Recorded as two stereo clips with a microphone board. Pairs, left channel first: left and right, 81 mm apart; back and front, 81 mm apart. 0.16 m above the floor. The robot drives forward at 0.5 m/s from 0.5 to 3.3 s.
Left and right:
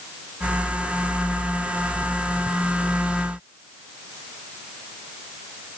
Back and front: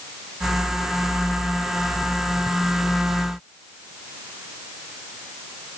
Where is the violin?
I don't hear a violin.